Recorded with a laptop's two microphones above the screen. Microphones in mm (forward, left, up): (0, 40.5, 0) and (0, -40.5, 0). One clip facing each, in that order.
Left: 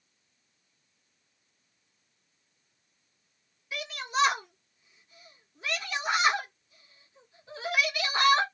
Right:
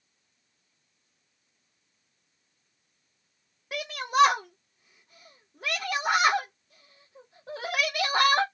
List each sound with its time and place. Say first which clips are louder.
3.7 s a shout: right 6 dB; 55° right (ahead or behind), 0.6 m